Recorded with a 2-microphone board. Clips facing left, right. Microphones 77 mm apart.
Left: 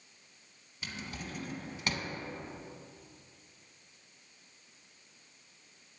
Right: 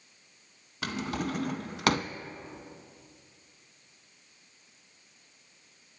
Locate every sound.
0.8 s a drawer: 75° right (ahead or behind), 0.7 m